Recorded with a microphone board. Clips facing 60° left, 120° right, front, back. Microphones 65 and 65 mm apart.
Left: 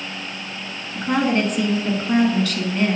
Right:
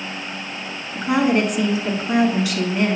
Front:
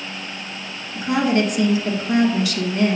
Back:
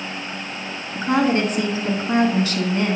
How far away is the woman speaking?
About 1.3 m.